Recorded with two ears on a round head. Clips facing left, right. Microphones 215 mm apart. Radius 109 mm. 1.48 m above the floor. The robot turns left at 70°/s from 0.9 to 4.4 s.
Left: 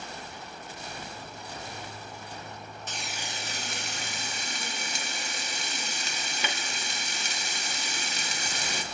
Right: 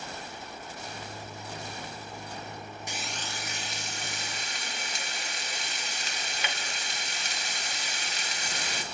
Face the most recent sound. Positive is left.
turn(degrees=85)